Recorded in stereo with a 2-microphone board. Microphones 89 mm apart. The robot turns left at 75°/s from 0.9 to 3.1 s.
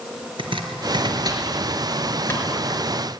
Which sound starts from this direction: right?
Chopping, at 0.4 s.